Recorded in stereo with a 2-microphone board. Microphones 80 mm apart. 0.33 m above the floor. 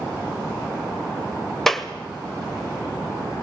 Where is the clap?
5° left (ahead or behind), 1.2 m.